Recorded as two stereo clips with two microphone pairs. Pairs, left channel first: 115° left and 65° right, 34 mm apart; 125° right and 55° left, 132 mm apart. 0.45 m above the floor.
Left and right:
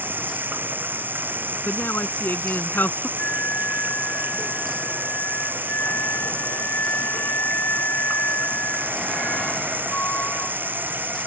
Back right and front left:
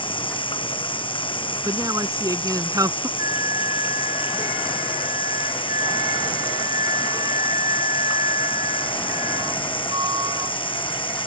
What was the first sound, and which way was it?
Running water, 75° right.